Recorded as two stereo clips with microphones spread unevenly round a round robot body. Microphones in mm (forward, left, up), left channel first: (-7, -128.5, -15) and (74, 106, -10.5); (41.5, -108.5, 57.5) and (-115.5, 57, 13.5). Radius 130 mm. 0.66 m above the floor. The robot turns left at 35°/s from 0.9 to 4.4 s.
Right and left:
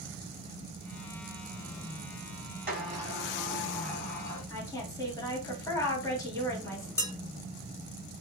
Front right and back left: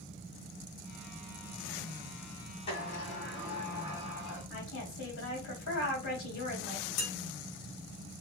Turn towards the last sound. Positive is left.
turn(degrees=-30)